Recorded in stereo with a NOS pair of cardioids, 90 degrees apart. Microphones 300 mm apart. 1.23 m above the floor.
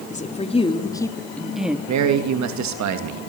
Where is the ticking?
No ticking in this recording.